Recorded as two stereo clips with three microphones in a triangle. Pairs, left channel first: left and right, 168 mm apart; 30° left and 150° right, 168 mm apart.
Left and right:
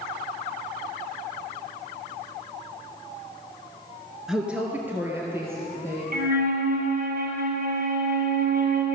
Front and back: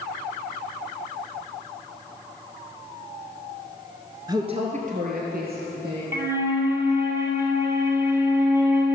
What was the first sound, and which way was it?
A woman speaking, 175° right.